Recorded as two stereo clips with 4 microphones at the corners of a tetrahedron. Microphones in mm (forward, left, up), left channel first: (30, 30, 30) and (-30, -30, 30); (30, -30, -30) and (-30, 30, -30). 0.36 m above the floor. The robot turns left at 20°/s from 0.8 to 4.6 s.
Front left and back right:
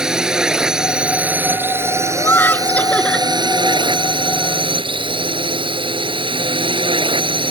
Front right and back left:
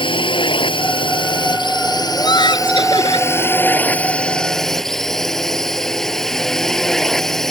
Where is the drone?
55° right; by 7.5 s 130° right.